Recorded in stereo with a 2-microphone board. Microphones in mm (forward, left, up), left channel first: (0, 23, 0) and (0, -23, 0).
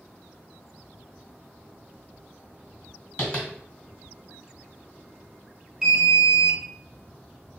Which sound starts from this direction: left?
Tapping, at 3.2 s.